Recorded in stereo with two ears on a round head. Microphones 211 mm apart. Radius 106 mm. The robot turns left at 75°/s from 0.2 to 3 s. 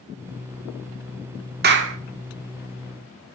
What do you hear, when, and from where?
1.6 s a clap: 40° right (ahead or behind), 1.8 m; by 2.0 s 60° right (ahead or behind), 1.8 m